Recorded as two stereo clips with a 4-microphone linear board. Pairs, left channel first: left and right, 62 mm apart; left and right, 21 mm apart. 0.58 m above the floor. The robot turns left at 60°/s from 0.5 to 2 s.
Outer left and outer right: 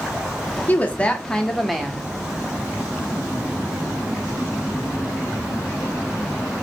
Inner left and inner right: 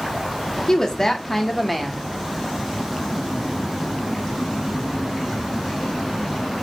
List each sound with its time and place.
0.7 s a woman speaking: 60° left, 0.6 m; by 2.0 s 20° right, 0.6 m